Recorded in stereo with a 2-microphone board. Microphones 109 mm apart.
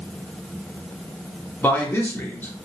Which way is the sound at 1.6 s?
20° left (ahead or behind).